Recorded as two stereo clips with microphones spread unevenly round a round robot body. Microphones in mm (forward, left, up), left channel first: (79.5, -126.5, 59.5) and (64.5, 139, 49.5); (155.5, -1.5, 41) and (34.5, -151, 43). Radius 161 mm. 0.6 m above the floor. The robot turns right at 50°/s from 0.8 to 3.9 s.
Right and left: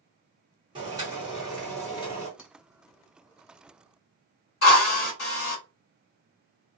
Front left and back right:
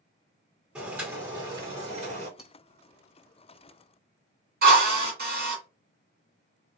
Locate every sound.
0.8 s boiling: 150° left, 1.3 m; by 2.3 s 135° right, 1.3 m
2.4 s cutlery clinking: 40° right, 0.8 m; by 2.5 s 35° right, 0.8 m
4.6 s a drill: 110° right, 1.7 m